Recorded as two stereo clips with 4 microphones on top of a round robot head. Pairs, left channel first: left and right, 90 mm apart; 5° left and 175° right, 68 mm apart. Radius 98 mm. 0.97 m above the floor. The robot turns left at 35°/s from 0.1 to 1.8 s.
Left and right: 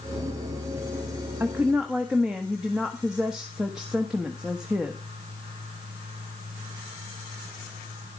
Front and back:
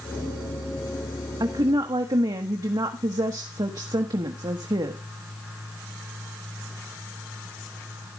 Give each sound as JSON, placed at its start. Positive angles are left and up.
{"t": 1.4, "sound": "a woman speaking", "azimuth_deg": -160, "distance_m": 1.4}